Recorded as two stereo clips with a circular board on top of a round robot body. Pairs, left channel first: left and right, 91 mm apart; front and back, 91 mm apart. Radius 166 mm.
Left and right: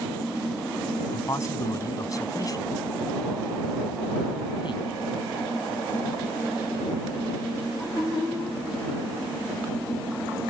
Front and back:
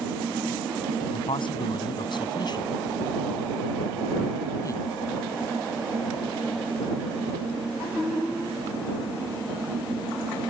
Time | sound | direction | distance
1.1 | a man speaking | 30° left | ?